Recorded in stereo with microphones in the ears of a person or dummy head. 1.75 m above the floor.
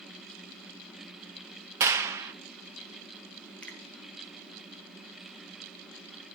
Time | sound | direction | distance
1.8 | a clap | 15° right (ahead or behind) | 0.8 m
3.6 | a finger snap | 5° left (ahead or behind) | 1.6 m